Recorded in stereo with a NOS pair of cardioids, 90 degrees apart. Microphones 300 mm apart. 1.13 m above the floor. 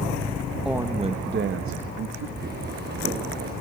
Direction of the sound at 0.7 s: 5° right.